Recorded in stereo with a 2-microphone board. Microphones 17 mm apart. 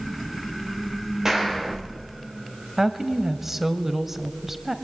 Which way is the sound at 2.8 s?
15° right (ahead or behind).